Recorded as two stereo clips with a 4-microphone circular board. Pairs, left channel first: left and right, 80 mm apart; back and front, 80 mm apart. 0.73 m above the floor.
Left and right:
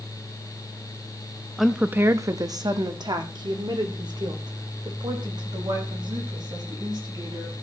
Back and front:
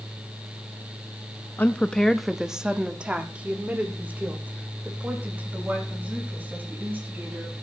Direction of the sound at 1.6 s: 175° left.